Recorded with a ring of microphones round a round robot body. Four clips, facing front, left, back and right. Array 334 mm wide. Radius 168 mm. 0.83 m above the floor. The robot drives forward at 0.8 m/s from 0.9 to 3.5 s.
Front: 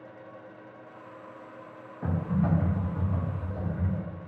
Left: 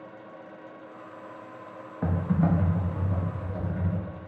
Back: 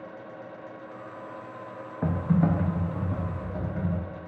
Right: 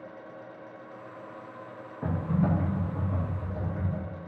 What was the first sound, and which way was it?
Typing on a keyboard, 150° left.